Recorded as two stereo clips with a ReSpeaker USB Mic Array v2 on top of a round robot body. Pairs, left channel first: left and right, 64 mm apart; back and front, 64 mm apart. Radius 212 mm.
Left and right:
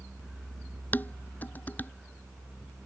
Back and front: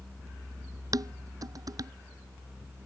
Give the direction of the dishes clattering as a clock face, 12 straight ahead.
11 o'clock.